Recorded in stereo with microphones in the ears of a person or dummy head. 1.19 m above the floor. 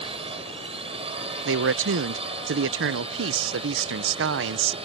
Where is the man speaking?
60° right (ahead or behind).